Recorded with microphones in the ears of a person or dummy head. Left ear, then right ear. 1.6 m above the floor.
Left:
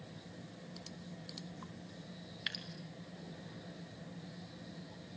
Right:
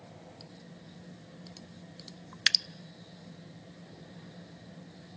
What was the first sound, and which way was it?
Dripping, 60° right (ahead or behind).